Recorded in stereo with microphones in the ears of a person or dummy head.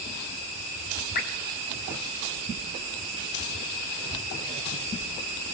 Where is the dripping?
50° left (ahead or behind), 4 m.